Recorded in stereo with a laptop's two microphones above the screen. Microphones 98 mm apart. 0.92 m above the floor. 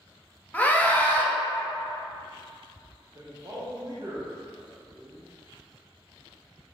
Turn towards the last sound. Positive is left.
turn(degrees=-45)  # may be behind; listen again after turning